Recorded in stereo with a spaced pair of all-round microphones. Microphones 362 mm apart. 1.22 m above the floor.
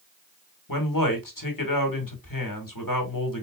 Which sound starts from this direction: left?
A man speaking, at 0.7 s.